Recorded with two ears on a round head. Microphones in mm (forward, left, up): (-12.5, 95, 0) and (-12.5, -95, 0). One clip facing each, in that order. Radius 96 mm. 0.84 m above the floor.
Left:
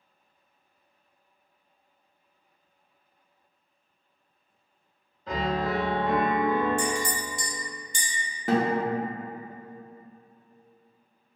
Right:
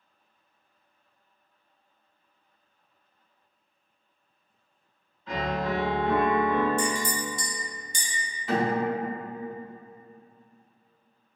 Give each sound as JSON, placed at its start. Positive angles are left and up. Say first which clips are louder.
{"t": 5.3, "sound": "a piano", "louder": "left 1 dB", "side_deg": 35, "distance_m": 0.6}
{"t": 6.8, "sound": "a clink", "louder": "even", "side_deg": -35, "distance_m": 1.2}
{"t": 8.5, "sound": "a guitar", "louder": "left 1 dB", "side_deg": 40, "distance_m": 0.6}